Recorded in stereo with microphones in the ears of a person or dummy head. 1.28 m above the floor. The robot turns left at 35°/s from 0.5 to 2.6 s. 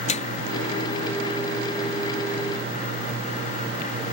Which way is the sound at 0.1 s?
40° left (ahead or behind).